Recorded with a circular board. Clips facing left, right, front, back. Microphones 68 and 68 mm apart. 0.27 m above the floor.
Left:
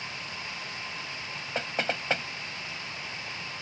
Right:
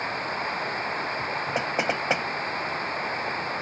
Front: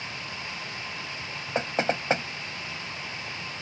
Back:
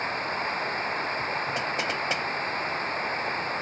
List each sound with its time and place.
0.0 s running water: 135° right
1.6 s knocking: 25° right